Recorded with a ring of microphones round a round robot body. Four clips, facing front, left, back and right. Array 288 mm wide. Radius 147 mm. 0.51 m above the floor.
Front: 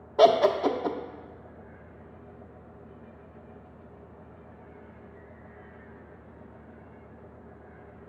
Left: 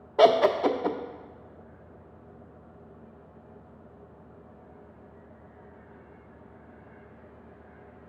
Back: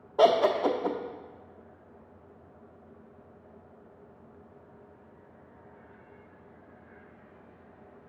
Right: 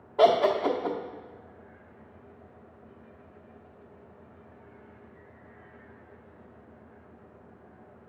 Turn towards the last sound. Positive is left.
turn(degrees=75)